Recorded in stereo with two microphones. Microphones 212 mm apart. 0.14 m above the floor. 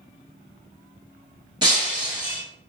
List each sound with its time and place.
1.6 s breaking glass: 25° right (ahead or behind), 0.9 m